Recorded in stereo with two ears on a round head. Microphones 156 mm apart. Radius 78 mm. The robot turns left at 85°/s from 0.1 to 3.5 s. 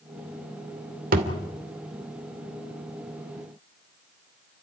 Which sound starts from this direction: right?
A thud, at 1.1 s.